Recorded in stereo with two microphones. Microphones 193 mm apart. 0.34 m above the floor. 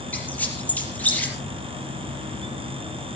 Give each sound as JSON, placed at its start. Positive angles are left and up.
{"t": 0.1, "sound": "a squeak", "side_deg": 10, "distance_m": 4.5}